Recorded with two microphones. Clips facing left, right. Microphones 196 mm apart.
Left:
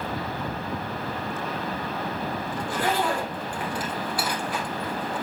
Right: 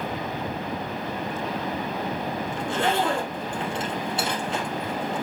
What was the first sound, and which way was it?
A zipper, 25° right (ahead or behind).